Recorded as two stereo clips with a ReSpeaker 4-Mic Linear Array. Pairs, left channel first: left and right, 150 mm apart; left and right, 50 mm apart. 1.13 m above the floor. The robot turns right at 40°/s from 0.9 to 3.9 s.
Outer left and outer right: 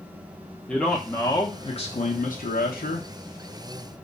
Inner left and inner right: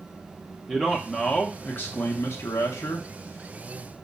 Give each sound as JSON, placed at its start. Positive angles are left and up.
{"t": 0.7, "sound": "a man speaking", "azimuth_deg": 5, "distance_m": 0.6}